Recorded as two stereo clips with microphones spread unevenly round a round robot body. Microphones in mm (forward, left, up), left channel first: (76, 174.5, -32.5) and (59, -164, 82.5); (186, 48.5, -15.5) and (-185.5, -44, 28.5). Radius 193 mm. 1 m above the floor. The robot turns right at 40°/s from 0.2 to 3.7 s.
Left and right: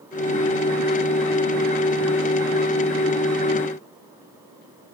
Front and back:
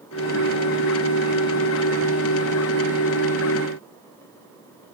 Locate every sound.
Only background noise.